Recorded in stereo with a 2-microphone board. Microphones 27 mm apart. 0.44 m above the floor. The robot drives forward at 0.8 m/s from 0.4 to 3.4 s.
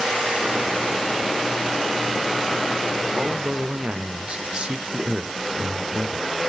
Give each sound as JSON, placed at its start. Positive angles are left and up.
{"t": 3.2, "sound": "a man speaking", "side_deg": -45, "distance_m": 1.1}